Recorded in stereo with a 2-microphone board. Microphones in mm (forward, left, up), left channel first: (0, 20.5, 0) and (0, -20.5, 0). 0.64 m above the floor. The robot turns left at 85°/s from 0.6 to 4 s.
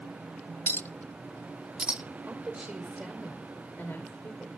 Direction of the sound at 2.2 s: 90° right.